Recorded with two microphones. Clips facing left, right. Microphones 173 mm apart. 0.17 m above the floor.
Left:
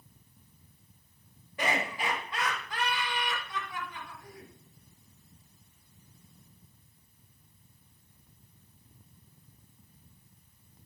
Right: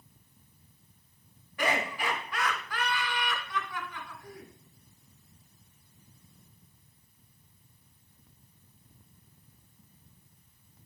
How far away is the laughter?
About 1.4 m.